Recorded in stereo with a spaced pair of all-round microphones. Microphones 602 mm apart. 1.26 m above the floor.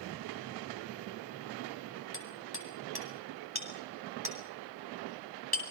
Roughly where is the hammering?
Left.